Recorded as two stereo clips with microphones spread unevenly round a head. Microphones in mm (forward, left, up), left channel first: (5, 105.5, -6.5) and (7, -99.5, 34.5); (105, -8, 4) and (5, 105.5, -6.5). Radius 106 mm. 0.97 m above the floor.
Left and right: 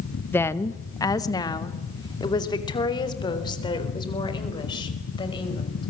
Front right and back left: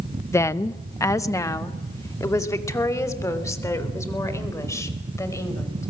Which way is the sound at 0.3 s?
25° left.